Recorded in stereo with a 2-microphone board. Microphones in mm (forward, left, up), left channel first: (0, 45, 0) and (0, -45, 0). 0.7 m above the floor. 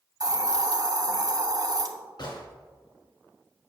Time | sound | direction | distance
0.2 | a hiss | 45° right (ahead or behind) | 0.7 m
2.2 | a gunshot | 60° left (ahead or behind) | 2 m